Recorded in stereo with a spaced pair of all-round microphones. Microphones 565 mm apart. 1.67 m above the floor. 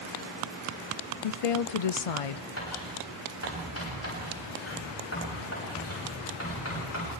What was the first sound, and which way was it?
A woman speaking, 70° left (ahead or behind).